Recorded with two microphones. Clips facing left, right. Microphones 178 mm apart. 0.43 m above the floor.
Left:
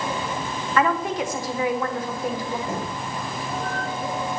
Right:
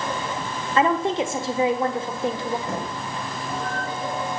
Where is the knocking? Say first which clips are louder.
Even; 65° right (ahead or behind), 6.5 m.